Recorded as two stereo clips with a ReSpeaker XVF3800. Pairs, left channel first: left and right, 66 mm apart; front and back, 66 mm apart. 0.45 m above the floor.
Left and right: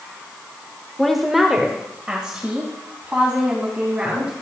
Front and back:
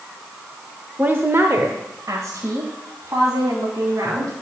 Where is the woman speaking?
170° left, 0.8 m; by 4.3 s 165° right, 4 m.